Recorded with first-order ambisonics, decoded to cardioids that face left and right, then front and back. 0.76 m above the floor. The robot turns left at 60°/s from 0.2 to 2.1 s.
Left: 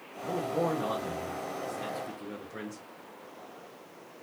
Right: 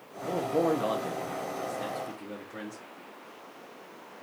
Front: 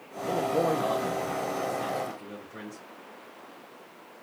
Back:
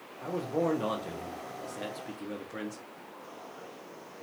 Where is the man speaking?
70° right, 0.6 m; by 2.8 s straight behind, 0.6 m.